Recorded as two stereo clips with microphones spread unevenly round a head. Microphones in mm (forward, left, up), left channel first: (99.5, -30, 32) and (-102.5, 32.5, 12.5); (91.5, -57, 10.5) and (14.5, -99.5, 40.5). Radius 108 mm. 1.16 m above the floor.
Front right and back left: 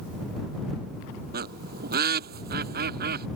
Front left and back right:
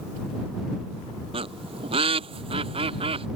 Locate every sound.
1.3 s a bird: 150° right